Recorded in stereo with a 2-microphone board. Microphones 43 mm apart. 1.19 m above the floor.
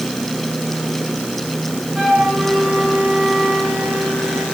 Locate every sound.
1.9 s a flute: centre (ahead or behind), 8.5 m